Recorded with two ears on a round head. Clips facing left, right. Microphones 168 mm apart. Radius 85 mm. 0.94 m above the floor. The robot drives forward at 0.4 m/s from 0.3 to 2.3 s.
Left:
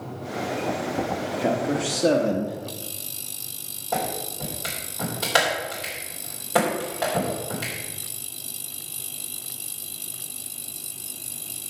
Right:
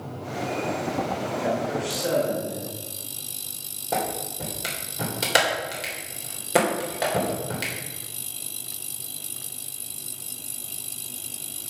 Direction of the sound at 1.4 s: 45° left (ahead or behind).